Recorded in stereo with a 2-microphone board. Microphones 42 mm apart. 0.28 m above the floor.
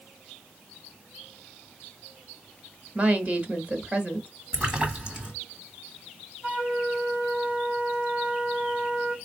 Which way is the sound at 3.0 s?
40° right (ahead or behind).